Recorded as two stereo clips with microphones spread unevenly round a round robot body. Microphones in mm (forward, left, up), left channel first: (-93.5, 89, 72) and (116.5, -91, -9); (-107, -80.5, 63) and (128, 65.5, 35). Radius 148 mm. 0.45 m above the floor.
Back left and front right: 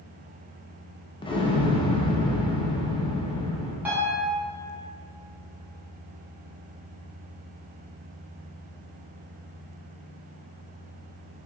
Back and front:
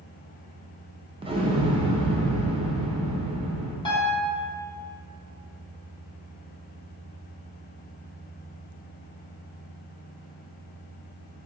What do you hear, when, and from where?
1.2 s an explosion: 50° left, 0.5 m
3.9 s a piano: 80° right, 0.8 m